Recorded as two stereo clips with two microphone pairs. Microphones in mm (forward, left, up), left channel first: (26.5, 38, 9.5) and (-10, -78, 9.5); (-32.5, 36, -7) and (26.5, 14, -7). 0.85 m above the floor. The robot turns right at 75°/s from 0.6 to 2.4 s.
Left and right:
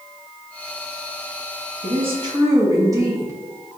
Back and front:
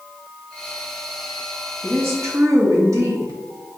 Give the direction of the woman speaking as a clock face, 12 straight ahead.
3 o'clock.